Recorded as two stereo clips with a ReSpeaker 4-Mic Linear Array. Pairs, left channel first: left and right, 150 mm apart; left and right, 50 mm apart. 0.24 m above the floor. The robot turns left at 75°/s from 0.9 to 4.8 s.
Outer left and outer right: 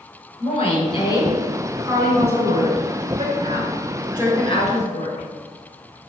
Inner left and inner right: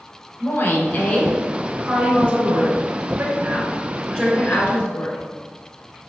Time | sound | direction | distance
0.4 | a woman speaking | 45° left | 3 m